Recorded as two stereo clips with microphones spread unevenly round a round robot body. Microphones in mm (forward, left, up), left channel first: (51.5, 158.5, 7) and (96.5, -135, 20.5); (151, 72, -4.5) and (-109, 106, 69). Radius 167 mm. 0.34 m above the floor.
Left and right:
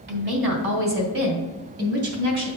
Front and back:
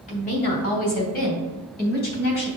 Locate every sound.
0.1 s a woman speaking: 40° right, 1.8 m; by 2.5 s 50° right, 3 m